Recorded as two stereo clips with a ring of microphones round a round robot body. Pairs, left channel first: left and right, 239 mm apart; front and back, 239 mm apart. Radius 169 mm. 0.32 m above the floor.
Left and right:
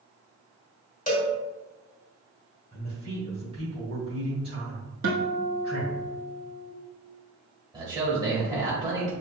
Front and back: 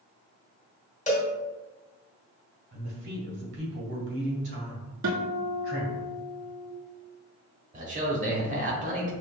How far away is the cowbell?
About 1.7 m.